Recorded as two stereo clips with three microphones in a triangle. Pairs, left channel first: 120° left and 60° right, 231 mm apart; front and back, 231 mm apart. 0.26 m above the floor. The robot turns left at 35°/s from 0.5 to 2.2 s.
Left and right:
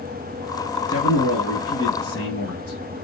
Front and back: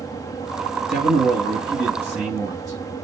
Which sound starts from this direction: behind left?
A man speaking, at 0.9 s.